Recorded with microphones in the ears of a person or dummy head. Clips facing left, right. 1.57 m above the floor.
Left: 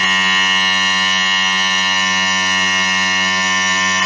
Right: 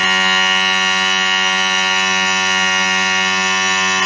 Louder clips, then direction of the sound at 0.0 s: Right 2 dB; 55° left (ahead or behind).